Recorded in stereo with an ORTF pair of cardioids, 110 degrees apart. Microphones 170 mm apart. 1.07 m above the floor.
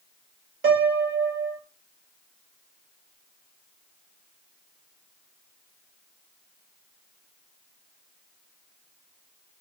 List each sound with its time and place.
0.6 s a piano: 65° right, 1.8 m